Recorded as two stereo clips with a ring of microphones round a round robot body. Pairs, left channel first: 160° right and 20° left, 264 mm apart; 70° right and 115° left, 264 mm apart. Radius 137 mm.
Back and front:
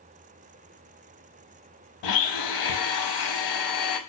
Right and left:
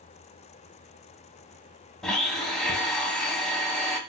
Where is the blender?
155° right, 0.7 m.